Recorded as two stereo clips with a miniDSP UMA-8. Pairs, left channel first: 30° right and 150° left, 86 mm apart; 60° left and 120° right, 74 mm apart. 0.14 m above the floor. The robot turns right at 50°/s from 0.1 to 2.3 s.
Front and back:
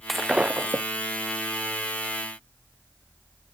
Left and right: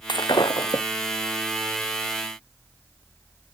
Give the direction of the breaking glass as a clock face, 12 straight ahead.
10 o'clock.